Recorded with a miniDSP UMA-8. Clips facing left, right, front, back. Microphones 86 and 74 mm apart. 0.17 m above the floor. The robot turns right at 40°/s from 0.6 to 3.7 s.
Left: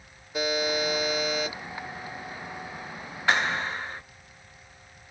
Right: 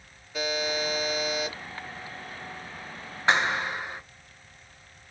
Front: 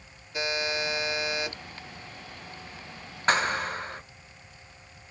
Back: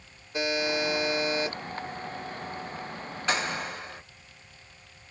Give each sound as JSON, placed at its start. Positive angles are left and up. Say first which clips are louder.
{"t": 0.3, "sound": "a buzzer", "louder": "left 2 dB, back 2 dB", "azimuth_deg": 150, "distance_m": 1.5}
{"t": 3.3, "sound": "a clap", "louder": "right 1 dB, front 5 dB", "azimuth_deg": -30, "distance_m": 1.4}